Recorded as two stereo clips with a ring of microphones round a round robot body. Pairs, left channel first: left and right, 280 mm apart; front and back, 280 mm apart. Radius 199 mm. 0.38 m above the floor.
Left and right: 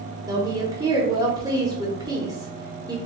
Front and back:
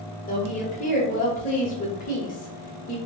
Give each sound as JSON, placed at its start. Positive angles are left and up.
{"t": 0.3, "sound": "a woman speaking", "azimuth_deg": -25, "distance_m": 0.9}